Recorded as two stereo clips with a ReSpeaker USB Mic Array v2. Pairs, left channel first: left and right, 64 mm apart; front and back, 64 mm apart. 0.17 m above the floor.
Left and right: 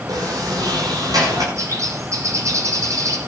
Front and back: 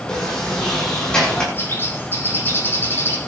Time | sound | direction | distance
0.1 | a sliding door | 75° right | 9 m
1.6 | a bird | 55° right | 6.5 m